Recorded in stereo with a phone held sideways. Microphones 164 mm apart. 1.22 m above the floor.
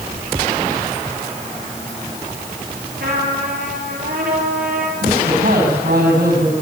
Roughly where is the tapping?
No tapping in this recording.